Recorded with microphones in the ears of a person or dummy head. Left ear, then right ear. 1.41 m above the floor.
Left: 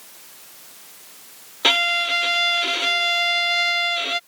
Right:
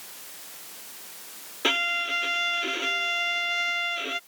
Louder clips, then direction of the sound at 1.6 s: Left 7 dB; 15° left (ahead or behind).